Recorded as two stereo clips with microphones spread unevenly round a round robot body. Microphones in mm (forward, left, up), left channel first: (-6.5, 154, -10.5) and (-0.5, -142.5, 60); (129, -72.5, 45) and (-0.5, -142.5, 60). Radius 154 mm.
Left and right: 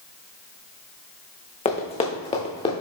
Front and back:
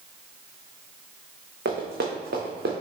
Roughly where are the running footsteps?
Behind.